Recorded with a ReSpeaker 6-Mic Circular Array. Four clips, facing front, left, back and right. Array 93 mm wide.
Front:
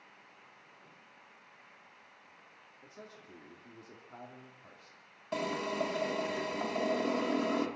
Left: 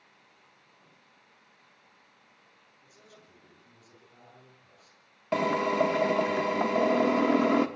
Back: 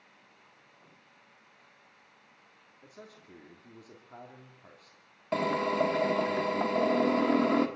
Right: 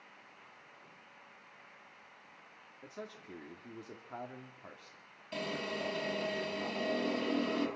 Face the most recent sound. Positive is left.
turn(degrees=115)